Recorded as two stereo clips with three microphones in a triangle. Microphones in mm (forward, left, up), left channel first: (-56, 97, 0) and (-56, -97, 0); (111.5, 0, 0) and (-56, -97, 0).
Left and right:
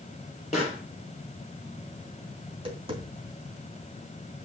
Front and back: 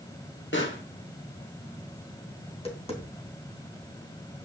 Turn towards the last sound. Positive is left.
turn(degrees=-30)